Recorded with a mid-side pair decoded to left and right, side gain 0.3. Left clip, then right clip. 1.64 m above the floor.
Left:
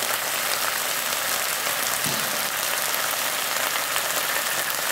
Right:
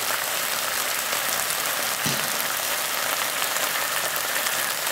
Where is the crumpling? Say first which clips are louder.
Right 1 dB; 55° right, 6.5 m.